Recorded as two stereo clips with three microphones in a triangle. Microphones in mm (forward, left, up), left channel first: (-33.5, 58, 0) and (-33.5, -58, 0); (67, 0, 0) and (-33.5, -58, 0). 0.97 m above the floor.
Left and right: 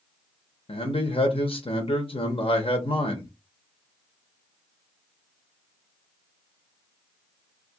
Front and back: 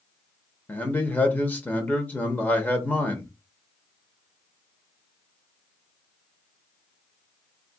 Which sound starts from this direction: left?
A man speaking, at 0.7 s.